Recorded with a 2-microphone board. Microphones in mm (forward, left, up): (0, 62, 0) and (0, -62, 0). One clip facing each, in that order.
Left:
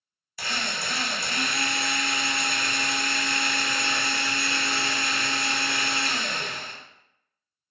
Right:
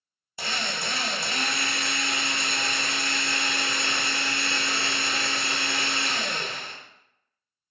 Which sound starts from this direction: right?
A drill, at 0.4 s.